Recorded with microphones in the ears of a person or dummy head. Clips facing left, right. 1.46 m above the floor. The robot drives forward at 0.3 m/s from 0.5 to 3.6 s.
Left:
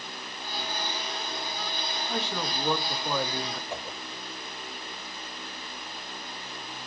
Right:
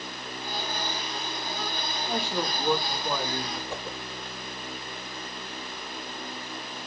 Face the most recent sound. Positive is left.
turn(degrees=-75)  # may be behind; listen again after turning